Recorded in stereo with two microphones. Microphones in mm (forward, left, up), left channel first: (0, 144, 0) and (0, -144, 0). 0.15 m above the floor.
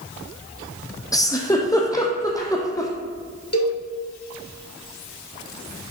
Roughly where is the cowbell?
Left.